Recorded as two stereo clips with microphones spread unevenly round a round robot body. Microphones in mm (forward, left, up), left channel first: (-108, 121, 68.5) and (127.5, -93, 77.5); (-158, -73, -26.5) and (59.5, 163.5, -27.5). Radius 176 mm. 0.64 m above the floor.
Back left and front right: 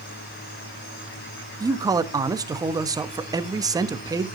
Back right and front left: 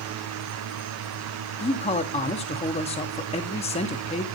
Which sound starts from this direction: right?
A man speaking, at 1.6 s.